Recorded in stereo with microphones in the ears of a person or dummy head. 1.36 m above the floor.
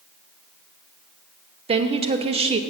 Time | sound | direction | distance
1.7 | a woman speaking | 30° right (ahead or behind) | 0.6 m